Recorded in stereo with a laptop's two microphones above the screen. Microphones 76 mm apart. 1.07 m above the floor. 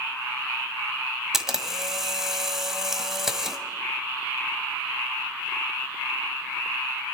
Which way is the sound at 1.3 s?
5° right (ahead or behind).